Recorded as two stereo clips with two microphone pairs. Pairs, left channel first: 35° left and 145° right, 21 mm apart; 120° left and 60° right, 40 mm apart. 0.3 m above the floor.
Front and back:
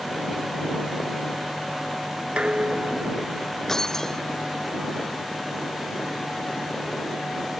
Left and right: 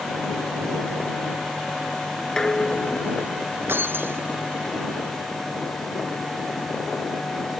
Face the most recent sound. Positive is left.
turn(degrees=-30)